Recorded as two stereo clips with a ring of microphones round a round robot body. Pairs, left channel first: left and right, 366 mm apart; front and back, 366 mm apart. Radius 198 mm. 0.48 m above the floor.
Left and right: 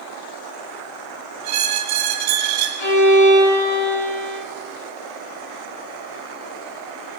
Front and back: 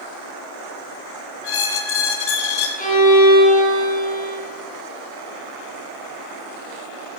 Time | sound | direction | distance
1.4 | a squeak | 35° right | 2 m
2.8 | a violin | 70° left | 5.5 m